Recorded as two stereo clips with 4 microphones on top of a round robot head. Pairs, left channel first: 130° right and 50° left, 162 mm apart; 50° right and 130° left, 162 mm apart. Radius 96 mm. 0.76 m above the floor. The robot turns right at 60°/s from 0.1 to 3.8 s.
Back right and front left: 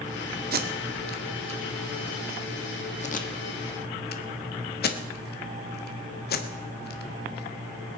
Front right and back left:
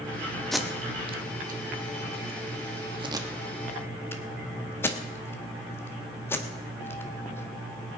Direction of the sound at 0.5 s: 35° left.